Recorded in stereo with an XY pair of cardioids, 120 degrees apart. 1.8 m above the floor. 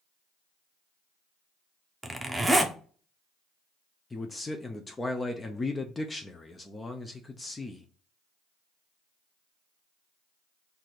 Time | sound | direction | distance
2.0 | a zipper | 15° right | 0.8 m
4.1 | a man speaking | 20° left | 0.6 m